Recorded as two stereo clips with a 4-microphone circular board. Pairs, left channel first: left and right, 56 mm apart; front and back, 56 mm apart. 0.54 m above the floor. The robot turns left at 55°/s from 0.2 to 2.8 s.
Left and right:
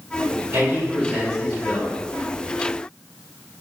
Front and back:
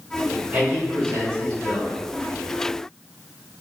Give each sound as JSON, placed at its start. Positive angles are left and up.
{"t": 0.5, "sound": "a man speaking", "azimuth_deg": -110, "distance_m": 1.7}